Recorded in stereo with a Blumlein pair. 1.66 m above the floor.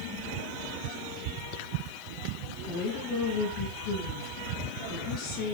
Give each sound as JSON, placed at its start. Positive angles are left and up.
{"t": 2.7, "sound": "a woman speaking", "azimuth_deg": 40, "distance_m": 10.0}